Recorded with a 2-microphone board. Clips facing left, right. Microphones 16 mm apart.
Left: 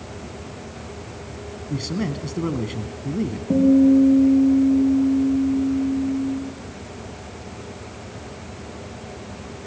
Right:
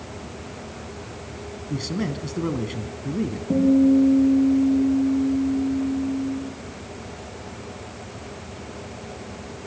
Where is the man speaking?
5° left (ahead or behind), 1.3 m.